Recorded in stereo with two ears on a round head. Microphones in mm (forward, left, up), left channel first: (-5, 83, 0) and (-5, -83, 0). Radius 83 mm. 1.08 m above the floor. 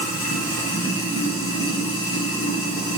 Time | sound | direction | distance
0.0 | running water | 55° left (ahead or behind) | 0.8 m